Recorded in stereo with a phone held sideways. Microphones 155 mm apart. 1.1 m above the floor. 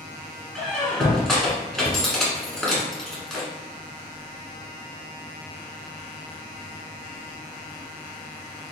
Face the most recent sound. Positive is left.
turn(degrees=5)  # may be behind; listen again after turning